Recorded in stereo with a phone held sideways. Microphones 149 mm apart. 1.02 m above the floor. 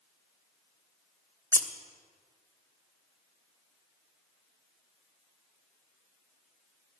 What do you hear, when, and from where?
1.5 s scissors: 20° left (ahead or behind), 0.8 m